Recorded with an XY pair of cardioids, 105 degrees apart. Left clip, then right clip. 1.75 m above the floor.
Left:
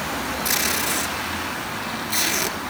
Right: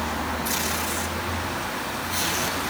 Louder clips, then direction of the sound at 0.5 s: Left 7 dB; 55° left.